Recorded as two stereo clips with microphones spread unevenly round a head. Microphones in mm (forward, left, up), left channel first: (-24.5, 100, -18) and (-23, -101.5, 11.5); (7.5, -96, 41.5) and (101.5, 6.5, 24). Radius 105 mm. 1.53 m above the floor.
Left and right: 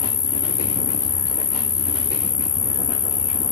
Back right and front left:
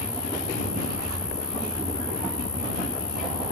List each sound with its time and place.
0.0 s an insect: 145° left